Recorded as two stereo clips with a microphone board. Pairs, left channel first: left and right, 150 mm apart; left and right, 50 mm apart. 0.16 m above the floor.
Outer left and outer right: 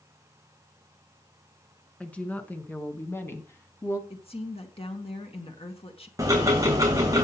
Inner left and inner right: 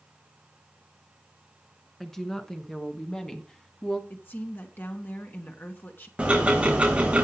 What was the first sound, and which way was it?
A woman speaking, 10° left (ahead or behind).